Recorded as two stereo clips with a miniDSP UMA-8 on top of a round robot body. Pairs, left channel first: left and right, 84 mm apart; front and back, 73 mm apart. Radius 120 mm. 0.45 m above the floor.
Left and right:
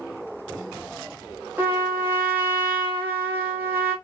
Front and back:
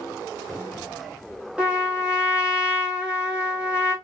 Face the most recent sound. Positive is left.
turn(degrees=-125)